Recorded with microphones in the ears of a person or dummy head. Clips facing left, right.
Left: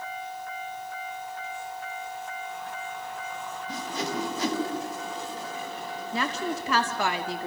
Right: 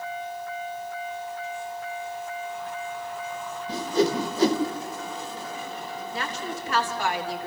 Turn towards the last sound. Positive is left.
turn(degrees=65)  # may be behind; listen again after turning